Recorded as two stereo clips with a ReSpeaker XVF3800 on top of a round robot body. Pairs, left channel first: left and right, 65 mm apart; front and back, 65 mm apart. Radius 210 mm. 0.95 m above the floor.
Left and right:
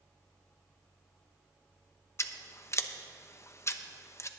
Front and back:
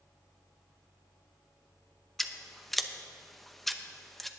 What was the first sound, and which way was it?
Scissors, 85° left.